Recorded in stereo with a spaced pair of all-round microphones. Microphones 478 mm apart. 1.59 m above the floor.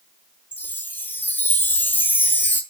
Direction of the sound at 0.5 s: 5° left (ahead or behind).